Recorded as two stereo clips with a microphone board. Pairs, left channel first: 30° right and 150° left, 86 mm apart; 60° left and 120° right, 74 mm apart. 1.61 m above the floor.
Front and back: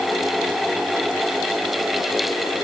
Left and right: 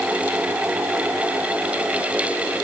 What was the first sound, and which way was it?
Only background noise.